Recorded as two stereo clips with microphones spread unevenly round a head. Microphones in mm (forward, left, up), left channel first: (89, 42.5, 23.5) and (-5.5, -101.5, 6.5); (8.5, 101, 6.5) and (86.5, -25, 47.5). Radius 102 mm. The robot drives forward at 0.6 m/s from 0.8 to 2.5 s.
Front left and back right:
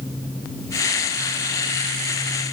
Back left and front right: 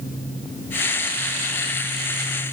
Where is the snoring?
No snoring in this recording.